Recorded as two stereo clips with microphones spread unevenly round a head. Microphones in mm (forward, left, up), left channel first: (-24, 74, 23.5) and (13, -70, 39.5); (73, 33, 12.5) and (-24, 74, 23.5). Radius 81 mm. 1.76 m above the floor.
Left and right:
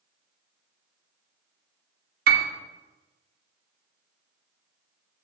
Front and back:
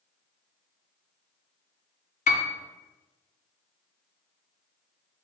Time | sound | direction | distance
2.3 | a piano | 50° right | 0.7 m